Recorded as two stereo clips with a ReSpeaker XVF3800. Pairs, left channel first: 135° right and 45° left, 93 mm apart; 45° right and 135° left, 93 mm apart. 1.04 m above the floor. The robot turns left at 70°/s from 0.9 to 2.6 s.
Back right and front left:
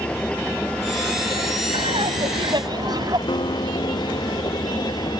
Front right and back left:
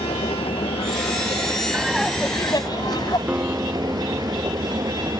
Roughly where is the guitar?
Behind right.